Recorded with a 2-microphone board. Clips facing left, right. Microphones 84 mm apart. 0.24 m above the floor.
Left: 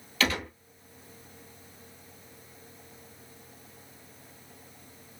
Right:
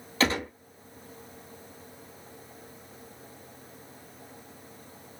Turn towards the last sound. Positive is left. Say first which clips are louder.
# right 3 dB
turn(degrees=-30)  # may be behind; listen again after turning